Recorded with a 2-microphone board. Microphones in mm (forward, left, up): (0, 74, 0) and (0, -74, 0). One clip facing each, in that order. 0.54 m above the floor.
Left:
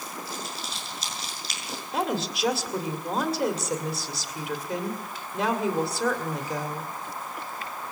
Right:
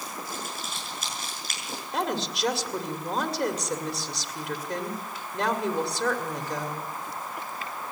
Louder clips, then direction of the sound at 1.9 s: Left 1 dB; centre (ahead or behind).